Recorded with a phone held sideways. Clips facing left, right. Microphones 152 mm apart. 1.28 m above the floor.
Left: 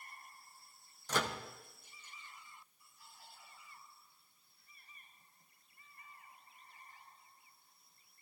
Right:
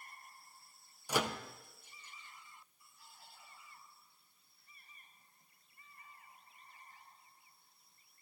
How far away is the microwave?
About 0.5 m.